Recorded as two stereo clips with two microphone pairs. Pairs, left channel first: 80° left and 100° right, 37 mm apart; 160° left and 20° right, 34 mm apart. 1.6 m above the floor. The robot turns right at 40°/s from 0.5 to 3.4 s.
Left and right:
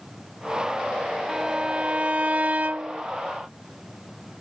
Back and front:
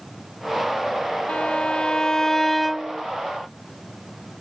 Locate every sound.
1.3 s a violin: 170° right; by 3.0 s 100° right